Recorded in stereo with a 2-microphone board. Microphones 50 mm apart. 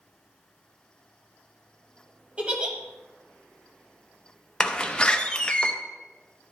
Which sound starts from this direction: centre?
A door slam, at 4.6 s.